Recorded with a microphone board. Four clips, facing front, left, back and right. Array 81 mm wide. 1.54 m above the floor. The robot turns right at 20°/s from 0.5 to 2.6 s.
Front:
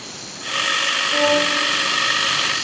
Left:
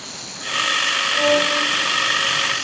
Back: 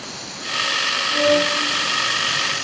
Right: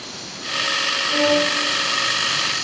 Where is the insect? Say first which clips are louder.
Even, back 2 dB; 85° right, 3.5 m; by 2.6 s 45° right, 3.5 m.